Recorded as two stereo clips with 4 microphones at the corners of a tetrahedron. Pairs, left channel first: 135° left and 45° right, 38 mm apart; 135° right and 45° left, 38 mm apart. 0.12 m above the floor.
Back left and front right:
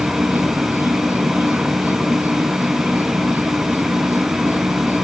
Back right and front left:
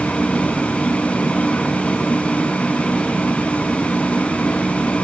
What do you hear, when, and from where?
0.0 s an insect: 70° right